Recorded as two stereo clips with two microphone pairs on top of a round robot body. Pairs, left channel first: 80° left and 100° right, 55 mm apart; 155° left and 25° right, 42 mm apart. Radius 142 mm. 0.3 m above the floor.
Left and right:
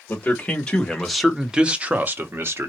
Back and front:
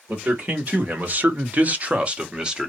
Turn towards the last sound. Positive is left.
turn(degrees=-105)